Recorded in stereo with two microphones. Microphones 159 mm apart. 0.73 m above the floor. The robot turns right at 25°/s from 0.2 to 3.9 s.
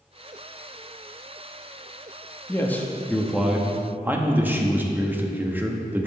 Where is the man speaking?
160° left, 0.8 m; by 6.1 s 165° right, 0.8 m.